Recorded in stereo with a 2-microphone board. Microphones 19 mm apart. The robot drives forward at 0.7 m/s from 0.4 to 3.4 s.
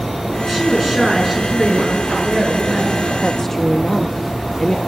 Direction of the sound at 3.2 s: 25° left (ahead or behind).